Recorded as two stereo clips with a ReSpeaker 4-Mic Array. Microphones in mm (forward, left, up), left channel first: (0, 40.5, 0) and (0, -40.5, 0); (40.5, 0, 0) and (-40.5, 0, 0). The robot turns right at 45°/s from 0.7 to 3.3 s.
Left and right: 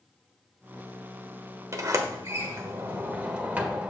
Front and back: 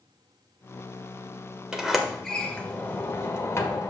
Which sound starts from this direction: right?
A sliding door, at 1.7 s.